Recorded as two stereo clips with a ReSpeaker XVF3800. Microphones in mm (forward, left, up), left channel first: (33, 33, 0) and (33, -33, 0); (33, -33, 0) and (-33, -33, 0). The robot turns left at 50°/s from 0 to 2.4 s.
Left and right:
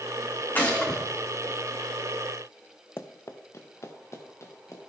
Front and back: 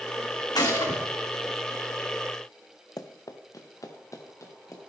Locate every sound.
0.6 s a gunshot: 25° left, 3 m; by 1.0 s 5° left, 3 m
3.0 s running footsteps: 35° left, 0.9 m; by 4.9 s 45° left, 3 m